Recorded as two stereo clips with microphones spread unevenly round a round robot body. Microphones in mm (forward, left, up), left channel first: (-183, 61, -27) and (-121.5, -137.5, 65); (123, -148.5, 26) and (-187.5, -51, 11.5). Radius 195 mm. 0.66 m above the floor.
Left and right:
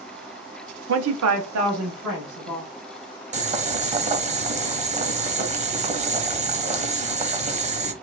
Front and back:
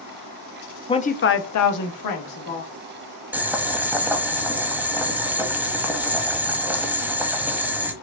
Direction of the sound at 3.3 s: 110° right.